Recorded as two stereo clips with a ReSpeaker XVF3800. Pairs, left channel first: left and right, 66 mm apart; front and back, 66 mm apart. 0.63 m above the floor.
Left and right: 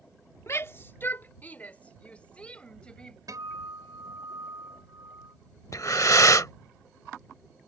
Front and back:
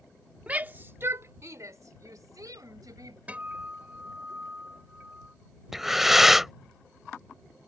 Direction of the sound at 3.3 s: 110° right.